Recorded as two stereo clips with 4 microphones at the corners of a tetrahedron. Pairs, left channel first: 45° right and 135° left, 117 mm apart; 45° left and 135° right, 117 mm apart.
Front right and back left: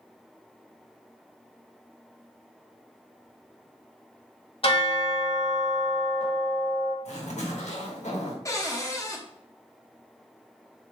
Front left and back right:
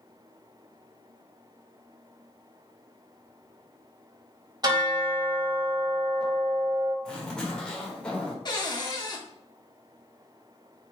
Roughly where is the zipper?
Ahead right.